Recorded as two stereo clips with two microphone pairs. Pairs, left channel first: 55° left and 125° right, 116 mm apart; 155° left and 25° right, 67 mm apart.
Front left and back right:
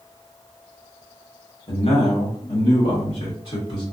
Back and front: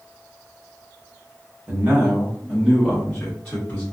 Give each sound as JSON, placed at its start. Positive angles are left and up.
{"t": 1.7, "sound": "a man speaking", "azimuth_deg": 35, "distance_m": 1.4}